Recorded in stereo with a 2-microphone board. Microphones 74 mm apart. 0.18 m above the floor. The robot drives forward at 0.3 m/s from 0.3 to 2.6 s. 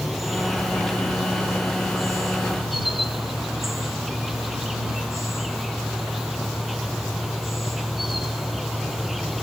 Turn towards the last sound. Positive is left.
turn(degrees=0)  # may be behind; listen again after turning